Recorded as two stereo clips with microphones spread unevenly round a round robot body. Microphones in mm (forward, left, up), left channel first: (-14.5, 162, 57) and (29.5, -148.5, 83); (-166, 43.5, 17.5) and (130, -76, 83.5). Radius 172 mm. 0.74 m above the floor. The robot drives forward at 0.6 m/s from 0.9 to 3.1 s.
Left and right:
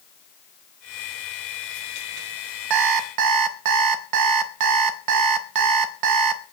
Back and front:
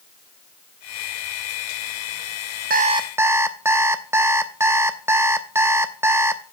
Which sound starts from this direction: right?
An alarm clock, at 2.7 s.